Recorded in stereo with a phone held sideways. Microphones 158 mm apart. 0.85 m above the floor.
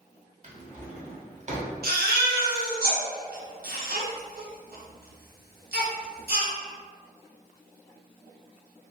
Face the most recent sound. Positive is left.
turn(degrees=-75)  # may be behind; listen again after turning